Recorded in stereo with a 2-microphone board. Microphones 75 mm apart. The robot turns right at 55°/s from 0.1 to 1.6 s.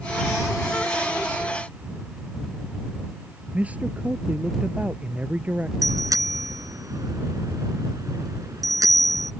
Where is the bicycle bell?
50° right (ahead or behind).